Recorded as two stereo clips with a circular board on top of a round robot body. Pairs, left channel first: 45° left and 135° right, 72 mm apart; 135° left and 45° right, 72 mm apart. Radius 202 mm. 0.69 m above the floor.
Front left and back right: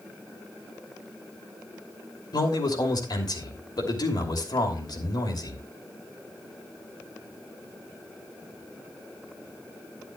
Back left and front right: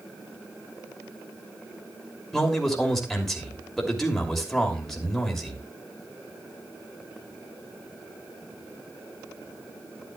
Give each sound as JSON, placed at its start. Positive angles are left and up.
{"t": 2.3, "sound": "a man speaking", "azimuth_deg": 50, "distance_m": 3.0}